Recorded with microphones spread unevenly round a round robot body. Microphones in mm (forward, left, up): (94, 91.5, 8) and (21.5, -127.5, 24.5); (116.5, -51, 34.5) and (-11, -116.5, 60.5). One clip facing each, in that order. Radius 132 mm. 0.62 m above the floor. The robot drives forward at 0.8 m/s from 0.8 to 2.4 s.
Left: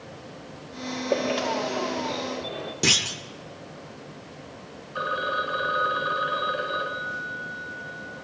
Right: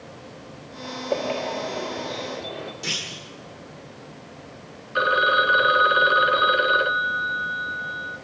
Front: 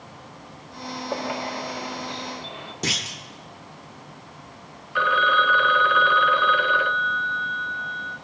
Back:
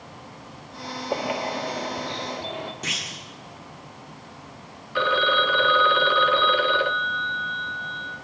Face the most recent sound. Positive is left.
turn(degrees=-90)